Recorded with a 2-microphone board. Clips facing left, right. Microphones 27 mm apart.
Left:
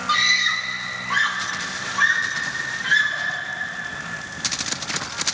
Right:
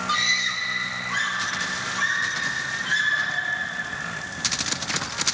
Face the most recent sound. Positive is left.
turn(degrees=25)  # may be behind; listen again after turning